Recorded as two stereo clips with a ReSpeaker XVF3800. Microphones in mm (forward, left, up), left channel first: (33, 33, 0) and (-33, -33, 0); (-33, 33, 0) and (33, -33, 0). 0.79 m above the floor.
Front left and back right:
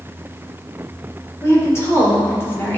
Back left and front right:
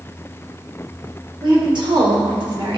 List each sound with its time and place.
1.4 s a woman speaking: 15° right, 2.5 m; by 2.8 s 20° right, 1.6 m